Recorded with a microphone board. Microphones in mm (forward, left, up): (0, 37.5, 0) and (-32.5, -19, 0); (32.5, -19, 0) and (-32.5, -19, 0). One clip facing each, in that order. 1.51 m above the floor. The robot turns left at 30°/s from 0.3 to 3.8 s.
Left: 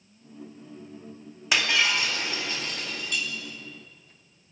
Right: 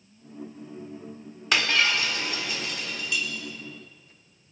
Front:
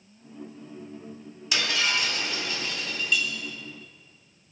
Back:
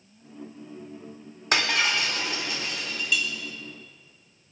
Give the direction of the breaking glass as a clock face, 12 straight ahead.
7 o'clock.